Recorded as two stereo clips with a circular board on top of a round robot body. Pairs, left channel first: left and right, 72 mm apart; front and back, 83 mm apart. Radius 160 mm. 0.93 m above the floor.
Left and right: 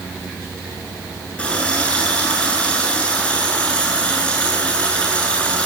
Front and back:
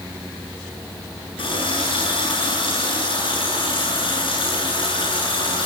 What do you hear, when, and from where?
1.4 s a running tap: 15° left, 9.5 m